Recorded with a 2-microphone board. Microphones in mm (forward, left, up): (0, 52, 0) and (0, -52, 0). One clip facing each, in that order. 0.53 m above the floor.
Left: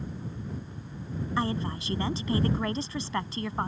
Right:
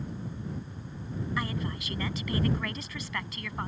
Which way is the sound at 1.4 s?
30° left (ahead or behind).